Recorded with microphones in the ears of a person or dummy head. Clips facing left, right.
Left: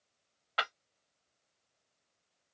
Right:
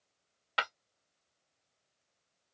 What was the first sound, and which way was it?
Breaking glass, 35° right (ahead or behind).